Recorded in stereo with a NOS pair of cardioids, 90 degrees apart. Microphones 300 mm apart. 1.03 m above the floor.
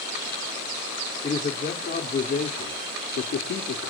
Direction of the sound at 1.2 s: 25° left.